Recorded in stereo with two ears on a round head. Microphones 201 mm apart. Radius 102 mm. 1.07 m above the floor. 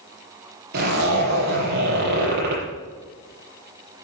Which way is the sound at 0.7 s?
45° right (ahead or behind).